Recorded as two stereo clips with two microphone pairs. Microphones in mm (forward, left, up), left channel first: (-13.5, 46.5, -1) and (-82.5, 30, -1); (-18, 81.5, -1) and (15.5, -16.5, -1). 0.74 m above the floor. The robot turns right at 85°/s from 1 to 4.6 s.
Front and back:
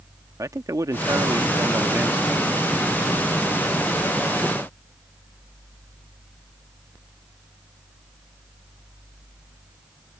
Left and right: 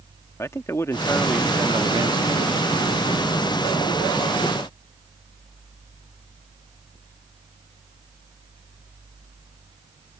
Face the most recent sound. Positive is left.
turn(degrees=115)